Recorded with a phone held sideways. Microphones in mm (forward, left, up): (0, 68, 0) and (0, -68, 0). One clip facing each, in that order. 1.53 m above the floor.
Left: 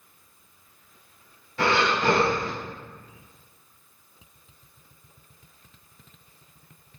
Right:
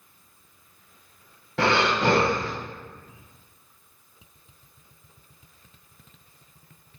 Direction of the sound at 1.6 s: 85° right.